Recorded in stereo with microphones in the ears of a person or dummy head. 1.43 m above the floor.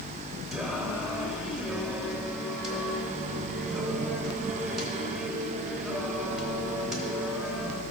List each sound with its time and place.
0.5 s singing: centre (ahead or behind), 0.7 m